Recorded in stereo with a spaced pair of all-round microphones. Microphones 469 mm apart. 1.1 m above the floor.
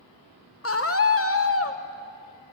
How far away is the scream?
About 0.8 m.